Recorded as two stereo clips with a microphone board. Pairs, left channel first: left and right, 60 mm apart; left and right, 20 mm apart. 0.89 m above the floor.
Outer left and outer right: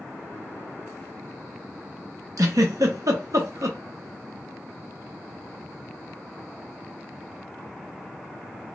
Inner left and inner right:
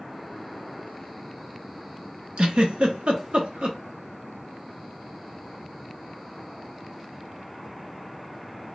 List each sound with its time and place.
2.4 s a giggle: 65° right (ahead or behind), 0.8 m